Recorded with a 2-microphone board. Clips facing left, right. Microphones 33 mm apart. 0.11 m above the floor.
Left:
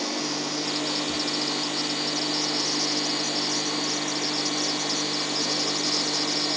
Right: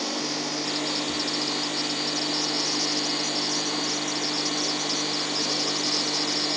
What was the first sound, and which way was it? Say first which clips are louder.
Ticking: even; 70° left (ahead or behind).